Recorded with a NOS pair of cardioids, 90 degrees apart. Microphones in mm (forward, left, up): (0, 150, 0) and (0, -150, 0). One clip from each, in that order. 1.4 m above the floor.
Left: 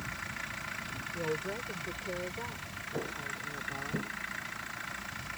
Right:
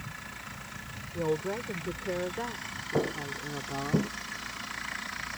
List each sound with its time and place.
1.1 s a woman speaking: 40° right; by 4.0 s 60° right
3.0 s footsteps: 65° right